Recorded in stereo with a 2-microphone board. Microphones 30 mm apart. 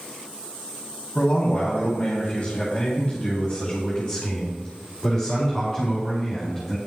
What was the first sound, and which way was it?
A man speaking, 50° left (ahead or behind).